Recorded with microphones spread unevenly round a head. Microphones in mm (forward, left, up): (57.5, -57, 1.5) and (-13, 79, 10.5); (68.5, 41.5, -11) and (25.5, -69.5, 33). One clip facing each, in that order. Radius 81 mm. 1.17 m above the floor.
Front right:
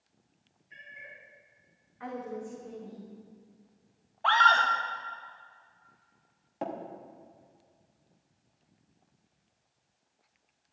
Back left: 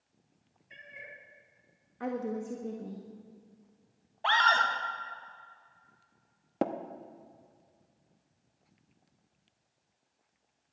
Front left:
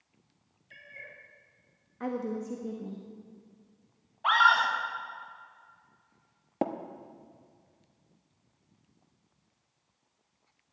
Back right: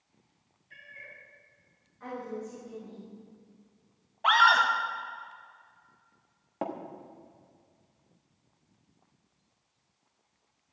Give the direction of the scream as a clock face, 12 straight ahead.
6 o'clock.